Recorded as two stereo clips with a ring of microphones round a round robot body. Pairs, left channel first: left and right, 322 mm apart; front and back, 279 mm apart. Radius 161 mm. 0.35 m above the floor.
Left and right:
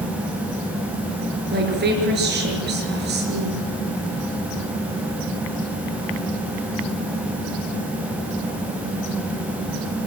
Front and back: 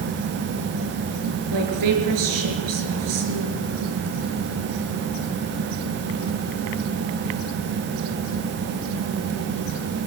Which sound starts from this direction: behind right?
A woman speaking, at 1.5 s.